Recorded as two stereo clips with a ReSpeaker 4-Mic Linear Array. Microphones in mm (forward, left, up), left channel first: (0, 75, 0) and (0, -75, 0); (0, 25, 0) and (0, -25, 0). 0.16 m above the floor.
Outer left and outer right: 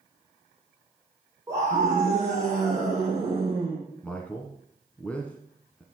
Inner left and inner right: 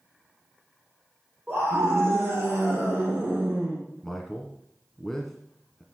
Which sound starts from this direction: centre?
A man speaking, at 4.0 s.